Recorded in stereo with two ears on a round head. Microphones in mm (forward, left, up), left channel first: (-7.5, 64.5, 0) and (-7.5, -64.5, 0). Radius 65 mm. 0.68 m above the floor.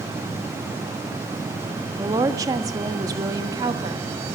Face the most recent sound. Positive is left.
turn(degrees=-25)  # may be behind; listen again after turning